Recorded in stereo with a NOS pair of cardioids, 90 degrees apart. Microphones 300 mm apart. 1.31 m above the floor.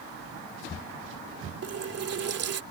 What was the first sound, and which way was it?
A running tap, 55° right.